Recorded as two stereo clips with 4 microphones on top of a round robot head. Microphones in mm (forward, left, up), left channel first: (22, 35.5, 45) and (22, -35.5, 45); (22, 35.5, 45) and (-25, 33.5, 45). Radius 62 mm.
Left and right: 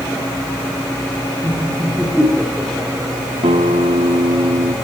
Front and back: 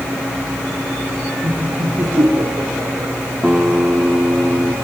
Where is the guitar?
105° right, 2.5 m.